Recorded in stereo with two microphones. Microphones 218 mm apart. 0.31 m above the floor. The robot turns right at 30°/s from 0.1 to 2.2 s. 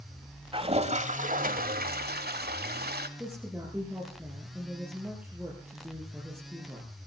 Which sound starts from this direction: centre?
A woman speaking, at 3.2 s.